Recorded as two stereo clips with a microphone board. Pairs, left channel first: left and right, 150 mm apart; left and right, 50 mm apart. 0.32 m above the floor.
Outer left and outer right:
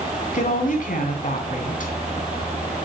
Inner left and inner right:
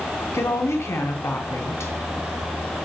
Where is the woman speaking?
65° left (ahead or behind), 3.5 m.